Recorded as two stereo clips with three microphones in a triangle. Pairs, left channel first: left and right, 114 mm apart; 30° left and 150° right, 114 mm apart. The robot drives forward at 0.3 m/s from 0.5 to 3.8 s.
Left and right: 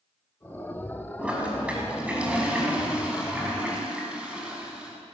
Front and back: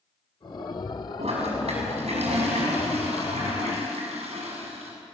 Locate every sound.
1.2 s a toilet flushing: 170° right, 5.5 m